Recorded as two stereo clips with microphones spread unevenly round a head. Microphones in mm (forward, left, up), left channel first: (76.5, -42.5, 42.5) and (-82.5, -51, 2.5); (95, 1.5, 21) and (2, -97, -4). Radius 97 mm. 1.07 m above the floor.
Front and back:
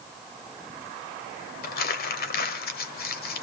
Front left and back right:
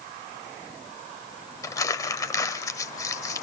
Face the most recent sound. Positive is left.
turn(degrees=-15)